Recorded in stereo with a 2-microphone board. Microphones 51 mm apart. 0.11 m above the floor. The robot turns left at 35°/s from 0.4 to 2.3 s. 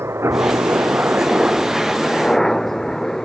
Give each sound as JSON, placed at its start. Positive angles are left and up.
{"t": 0.0, "sound": "a helicopter", "side_deg": -55}